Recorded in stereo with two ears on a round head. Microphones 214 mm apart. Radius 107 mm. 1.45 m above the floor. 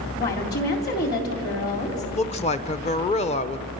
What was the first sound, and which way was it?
A woman speaking, 45° left (ahead or behind).